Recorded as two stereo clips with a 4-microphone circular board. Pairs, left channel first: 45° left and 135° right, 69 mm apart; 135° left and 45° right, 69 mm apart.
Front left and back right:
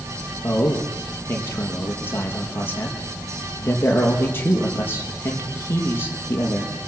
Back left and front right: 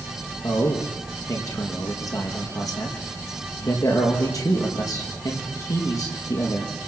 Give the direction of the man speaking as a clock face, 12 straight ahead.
9 o'clock.